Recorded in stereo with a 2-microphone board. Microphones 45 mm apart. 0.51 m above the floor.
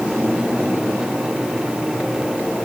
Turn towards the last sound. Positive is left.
No sound to turn to.